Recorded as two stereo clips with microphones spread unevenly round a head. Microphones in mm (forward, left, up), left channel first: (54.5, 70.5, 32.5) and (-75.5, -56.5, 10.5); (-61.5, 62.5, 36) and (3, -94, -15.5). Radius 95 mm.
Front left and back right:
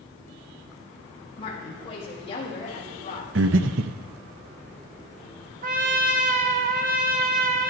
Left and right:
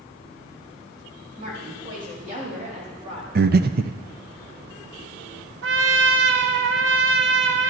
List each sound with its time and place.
1.4 s a woman speaking: 20° right, 6 m; by 3.2 s 10° right, 3 m
3.4 s breathing: 105° right, 0.6 m
5.6 s a trumpet: 85° right, 0.8 m